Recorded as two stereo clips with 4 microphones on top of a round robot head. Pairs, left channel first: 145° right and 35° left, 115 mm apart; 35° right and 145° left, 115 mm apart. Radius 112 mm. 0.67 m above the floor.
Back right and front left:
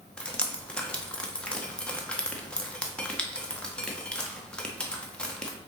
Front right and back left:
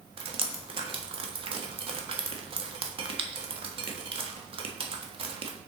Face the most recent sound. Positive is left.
turn(degrees=135)